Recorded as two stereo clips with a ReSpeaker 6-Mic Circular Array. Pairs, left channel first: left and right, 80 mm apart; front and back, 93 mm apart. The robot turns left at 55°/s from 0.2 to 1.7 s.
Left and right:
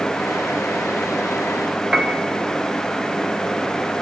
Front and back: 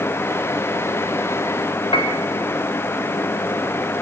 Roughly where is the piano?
Ahead.